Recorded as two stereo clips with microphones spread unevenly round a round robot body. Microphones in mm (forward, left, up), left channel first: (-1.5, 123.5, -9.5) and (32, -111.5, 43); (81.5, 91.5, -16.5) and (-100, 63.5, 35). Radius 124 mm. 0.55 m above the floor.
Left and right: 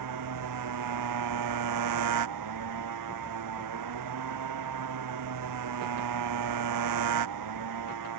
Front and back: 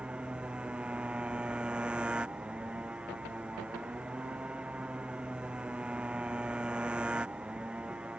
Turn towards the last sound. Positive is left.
turn(degrees=-85)